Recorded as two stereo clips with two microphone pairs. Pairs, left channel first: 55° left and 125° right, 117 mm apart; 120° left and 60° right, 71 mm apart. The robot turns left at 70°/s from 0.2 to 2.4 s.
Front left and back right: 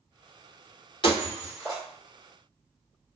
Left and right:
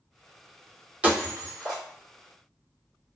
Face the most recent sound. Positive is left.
turn(degrees=-85)